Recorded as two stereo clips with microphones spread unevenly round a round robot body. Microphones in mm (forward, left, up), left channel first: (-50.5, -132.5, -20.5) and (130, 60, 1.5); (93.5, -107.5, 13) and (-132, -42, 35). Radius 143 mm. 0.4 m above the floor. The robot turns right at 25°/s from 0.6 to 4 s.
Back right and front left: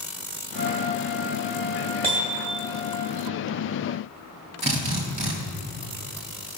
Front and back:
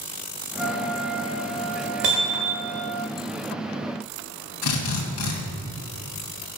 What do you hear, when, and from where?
0.5 s a trumpet: 75° left, 4 m; by 3.0 s 135° left, 4 m
2.0 s hammering: 120° left, 2 m; by 2.7 s 135° left, 2 m
4.6 s a drill: 20° right, 2 m